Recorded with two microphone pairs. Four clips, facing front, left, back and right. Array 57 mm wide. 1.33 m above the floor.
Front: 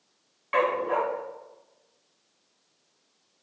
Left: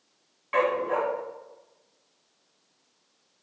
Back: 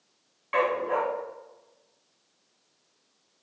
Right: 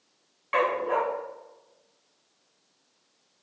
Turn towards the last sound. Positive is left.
turn(degrees=-60)